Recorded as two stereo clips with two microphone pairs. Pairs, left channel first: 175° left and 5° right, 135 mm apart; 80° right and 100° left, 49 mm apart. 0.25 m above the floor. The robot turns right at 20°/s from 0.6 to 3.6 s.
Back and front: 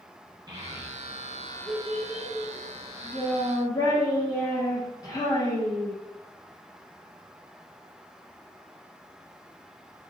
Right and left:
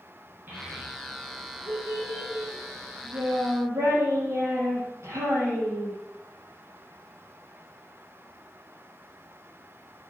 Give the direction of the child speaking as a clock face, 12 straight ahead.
10 o'clock.